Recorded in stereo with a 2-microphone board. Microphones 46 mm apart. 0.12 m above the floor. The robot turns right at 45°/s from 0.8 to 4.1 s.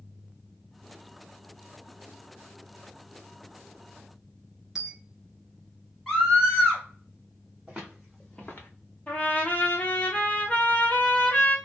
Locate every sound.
4.8 s a dropped coin: 10° right (ahead or behind), 0.8 m
6.1 s a scream: 5° left (ahead or behind), 1.1 m
7.7 s footsteps: 20° right (ahead or behind), 1.4 m; by 8.7 s 55° left (ahead or behind), 1.1 m
9.1 s a trumpet: 35° left (ahead or behind), 0.8 m